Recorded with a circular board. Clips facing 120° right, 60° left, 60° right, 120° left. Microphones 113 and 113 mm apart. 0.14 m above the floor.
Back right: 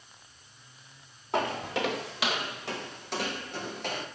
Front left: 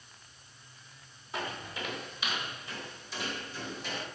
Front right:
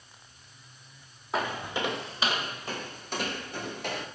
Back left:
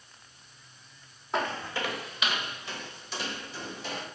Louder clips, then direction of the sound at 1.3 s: Back right 9 dB, even; 145° right.